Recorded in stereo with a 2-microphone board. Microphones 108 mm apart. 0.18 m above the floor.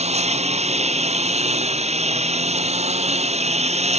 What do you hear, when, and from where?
0.0 s a lawn mower: 85° right